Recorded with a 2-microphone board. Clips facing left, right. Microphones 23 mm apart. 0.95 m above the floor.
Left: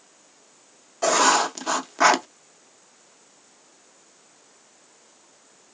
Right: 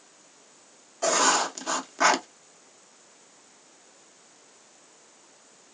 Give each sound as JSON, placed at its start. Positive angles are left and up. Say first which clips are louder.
{"t": 1.0, "sound": "writing", "louder": "left 4 dB", "side_deg": 20, "distance_m": 0.5}